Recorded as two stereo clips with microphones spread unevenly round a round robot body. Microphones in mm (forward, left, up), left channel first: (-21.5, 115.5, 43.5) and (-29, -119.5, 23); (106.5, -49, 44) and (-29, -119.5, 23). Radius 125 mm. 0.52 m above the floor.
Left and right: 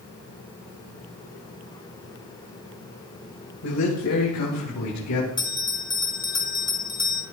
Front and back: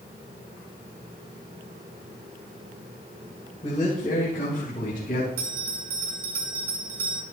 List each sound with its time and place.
3.6 s a man speaking: 90° left, 2.5 m; by 5.3 s 80° left, 4.5 m
5.4 s a bell: 160° left, 1.8 m